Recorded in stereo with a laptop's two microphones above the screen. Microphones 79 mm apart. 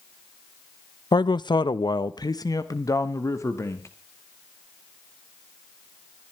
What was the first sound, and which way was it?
A man speaking, 65° left (ahead or behind).